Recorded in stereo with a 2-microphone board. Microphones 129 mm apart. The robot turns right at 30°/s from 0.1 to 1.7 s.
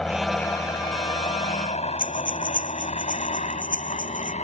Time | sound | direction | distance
0.0 | a helicopter | 5° left (ahead or behind) | ?
2.0 | breathing | 80° left | ?